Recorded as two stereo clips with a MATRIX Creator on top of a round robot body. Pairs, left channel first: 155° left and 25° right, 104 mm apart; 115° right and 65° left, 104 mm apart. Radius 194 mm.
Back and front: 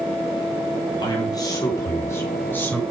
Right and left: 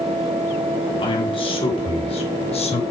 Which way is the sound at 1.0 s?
155° right.